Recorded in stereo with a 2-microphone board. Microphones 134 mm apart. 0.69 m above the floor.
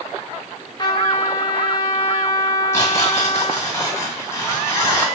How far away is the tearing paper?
About 1.8 m.